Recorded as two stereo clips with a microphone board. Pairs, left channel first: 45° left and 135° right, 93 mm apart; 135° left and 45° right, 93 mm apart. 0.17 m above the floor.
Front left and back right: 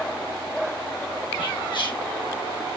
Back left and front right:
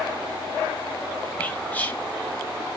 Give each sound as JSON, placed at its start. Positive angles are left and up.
{"t": 1.4, "sound": "whispering", "azimuth_deg": 65, "distance_m": 2.0}